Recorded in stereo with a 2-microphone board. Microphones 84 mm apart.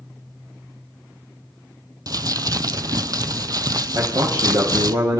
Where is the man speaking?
60° right (ahead or behind), 3.5 m.